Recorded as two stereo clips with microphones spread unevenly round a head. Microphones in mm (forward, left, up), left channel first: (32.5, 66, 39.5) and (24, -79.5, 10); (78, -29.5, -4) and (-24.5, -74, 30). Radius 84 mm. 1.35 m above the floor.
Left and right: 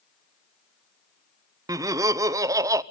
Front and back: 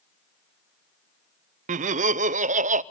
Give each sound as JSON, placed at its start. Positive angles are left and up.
{"t": 1.7, "sound": "laughter", "azimuth_deg": -145, "distance_m": 0.5}